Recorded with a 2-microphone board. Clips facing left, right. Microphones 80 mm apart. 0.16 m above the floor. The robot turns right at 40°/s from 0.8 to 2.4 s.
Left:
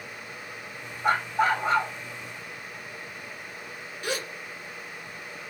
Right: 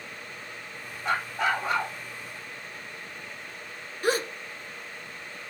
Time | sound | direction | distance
1.0 | a dog barking | 125° left | 2.5 m
4.0 | a gasp | 40° right (ahead or behind) | 0.7 m